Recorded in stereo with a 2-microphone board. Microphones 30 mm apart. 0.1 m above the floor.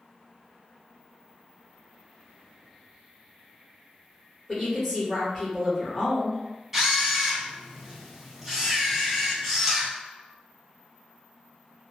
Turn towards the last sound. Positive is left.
turn(degrees=-5)  # may be behind; listen again after turning